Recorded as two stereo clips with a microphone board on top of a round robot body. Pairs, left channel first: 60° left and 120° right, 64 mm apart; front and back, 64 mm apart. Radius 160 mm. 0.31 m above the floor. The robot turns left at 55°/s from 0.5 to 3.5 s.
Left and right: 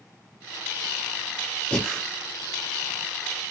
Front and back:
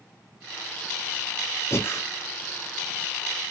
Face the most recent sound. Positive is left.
turn(degrees=-100)